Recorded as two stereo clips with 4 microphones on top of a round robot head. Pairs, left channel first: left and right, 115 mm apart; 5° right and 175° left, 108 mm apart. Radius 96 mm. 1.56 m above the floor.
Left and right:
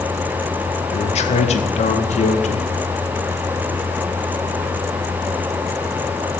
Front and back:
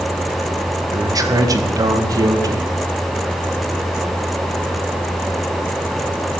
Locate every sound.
0.9 s a man speaking: 115° left, 2.5 m